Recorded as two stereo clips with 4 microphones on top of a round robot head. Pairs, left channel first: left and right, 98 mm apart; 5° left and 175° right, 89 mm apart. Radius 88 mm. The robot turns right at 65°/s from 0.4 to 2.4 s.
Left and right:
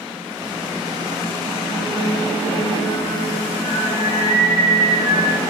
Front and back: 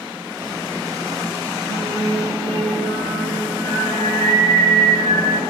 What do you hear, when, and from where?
1.7 s singing: 160° left, 5 m; by 5.4 s 155° right, 5 m